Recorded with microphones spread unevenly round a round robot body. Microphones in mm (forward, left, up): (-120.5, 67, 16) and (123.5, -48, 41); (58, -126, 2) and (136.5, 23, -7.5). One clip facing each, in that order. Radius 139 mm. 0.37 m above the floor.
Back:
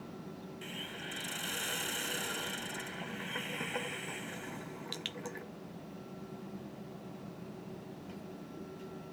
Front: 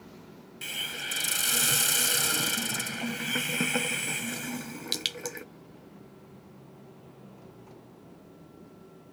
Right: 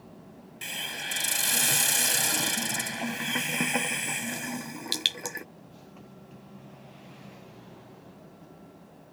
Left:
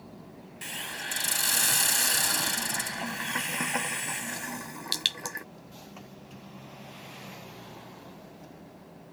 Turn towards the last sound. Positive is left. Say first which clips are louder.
# even, right 1 dB
turn(degrees=-50)